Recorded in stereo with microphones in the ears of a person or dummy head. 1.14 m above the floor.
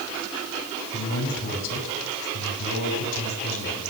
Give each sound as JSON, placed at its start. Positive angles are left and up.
{"t": 0.9, "sound": "a man speaking", "side_deg": 65, "distance_m": 6.0}